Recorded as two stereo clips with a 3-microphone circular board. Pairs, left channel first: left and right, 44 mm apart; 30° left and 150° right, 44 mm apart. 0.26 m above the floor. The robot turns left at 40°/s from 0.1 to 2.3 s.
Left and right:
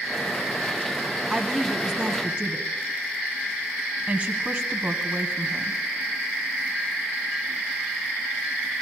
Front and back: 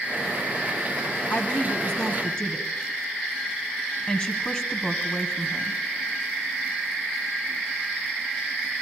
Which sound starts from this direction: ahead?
A woman speaking, at 1.3 s.